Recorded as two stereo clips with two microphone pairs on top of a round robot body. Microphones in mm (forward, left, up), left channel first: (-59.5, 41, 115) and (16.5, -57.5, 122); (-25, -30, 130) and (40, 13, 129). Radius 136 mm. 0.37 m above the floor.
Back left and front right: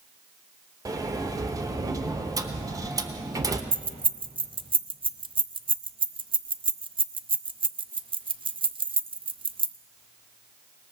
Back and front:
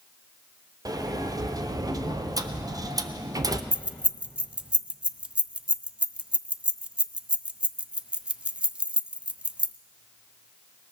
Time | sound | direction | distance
0.8 | a sliding door | 5° left | 0.8 m
3.7 | keys jangling | 35° right | 0.6 m